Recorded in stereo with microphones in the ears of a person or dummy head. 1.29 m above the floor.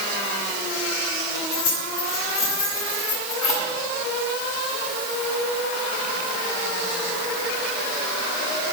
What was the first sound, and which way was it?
Keys jangling, 20° left (ahead or behind).